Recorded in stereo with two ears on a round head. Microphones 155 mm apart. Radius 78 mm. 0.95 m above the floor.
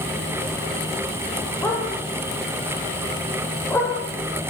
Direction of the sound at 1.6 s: 10° left (ahead or behind).